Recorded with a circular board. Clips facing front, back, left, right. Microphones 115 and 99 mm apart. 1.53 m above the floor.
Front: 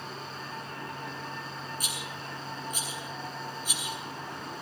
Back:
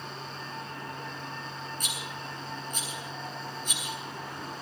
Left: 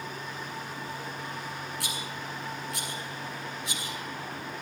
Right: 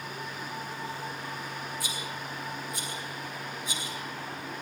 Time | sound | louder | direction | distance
1.8 | a rattle | even, even | 80° left | 8.5 m